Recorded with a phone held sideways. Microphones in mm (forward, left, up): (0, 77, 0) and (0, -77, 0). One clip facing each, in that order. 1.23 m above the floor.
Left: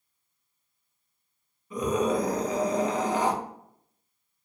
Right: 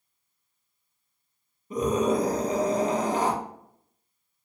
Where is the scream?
40° right (ahead or behind), 1.6 m.